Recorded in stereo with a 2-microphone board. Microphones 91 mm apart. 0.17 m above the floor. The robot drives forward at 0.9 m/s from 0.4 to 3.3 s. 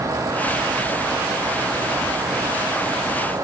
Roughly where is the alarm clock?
I don't hear an alarm clock.